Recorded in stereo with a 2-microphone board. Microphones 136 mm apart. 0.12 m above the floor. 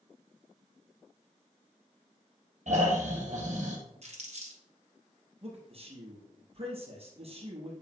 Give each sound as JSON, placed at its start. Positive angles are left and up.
{"t": 2.7, "sound": "snoring", "side_deg": -60, "distance_m": 3.0}
{"t": 4.0, "sound": "crumpling", "side_deg": -50, "distance_m": 3.0}
{"t": 5.4, "sound": "a man speaking", "side_deg": -45, "distance_m": 2.5}